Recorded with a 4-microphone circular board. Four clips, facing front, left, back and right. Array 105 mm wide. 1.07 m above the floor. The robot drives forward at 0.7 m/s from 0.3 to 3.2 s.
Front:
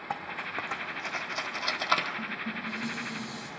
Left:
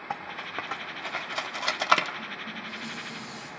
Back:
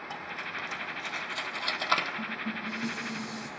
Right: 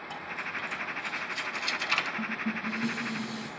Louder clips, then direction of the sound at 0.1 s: Left 3 dB, front 5 dB; 50° left.